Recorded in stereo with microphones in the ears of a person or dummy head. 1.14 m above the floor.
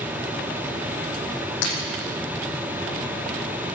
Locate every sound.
1.6 s breaking glass: 60° left (ahead or behind), 7.5 m